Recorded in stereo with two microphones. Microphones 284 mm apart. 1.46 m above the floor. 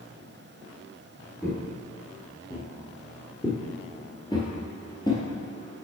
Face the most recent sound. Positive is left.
turn(degrees=15)  # may be behind; listen again after turning